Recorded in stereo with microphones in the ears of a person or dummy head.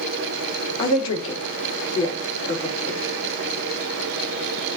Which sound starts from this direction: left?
A woman speaking, at 0.8 s.